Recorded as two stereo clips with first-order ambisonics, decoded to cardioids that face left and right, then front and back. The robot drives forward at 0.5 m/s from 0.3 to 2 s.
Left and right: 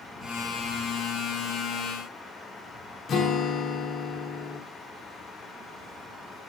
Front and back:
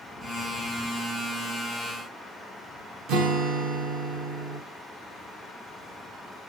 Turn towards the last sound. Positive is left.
turn(degrees=150)